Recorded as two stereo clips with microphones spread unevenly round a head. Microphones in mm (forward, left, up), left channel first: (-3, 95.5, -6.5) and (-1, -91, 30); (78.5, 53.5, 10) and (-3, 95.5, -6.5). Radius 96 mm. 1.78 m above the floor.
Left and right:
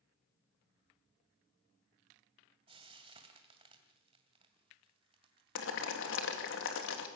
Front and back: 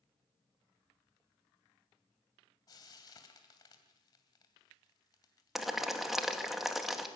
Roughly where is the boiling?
Ahead left.